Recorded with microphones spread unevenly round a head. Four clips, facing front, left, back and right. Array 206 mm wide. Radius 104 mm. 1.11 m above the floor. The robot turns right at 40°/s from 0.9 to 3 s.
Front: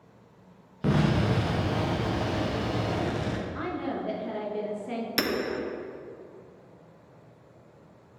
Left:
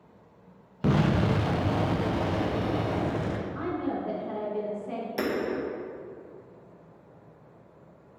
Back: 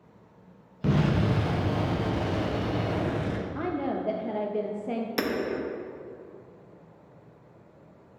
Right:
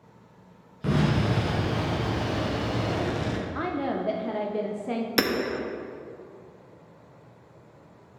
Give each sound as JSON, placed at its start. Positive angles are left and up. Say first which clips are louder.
{"t": 0.8, "sound": "an explosion", "louder": "left 1 dB, even", "azimuth_deg": 90, "distance_m": 0.6}
{"t": 3.5, "sound": "a woman speaking", "louder": "right 3 dB, back 2 dB", "azimuth_deg": -140, "distance_m": 0.7}
{"t": 5.2, "sound": "hammering", "louder": "right 4 dB, front 1 dB", "azimuth_deg": -65, "distance_m": 0.9}